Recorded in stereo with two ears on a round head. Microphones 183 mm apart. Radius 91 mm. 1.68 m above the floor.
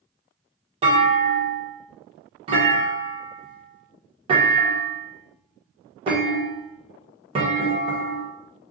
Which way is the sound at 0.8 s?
25° right (ahead or behind).